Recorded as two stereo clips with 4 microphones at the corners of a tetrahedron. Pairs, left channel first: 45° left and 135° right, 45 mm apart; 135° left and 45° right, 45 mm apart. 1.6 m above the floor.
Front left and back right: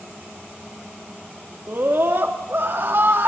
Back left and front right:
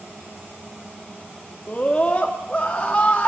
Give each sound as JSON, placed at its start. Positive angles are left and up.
{"t": 1.7, "sound": "a scream", "azimuth_deg": -165, "distance_m": 2.5}